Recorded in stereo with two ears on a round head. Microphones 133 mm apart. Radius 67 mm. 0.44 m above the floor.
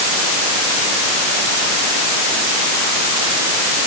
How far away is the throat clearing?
No throat clearing in this recording.